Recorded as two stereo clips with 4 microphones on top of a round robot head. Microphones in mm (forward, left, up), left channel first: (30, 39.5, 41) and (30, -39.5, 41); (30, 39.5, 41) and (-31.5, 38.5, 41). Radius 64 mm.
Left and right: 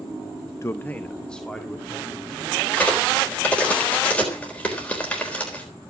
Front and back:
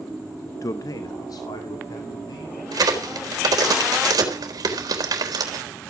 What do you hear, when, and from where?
0.6 s a man speaking: 35° left, 0.7 m; by 2.6 s straight ahead, 3.5 m
2.7 s a crack: 165° left, 4 m